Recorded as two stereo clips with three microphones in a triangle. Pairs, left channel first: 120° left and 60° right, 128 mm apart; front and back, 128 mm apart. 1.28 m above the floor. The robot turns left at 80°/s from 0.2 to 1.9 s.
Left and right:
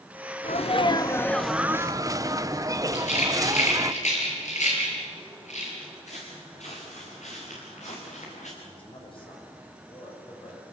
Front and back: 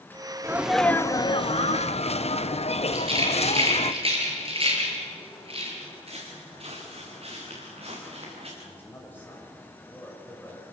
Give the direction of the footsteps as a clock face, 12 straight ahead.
7 o'clock.